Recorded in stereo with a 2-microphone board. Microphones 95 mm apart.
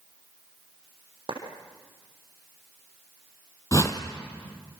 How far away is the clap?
About 5.5 m.